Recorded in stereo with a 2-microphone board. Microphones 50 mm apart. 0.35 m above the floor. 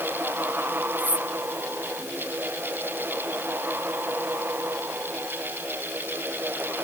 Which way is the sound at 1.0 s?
25° right (ahead or behind).